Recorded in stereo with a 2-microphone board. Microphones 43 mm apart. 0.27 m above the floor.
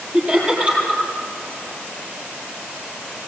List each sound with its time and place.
0.1 s laughter: 30° right (ahead or behind), 8.5 m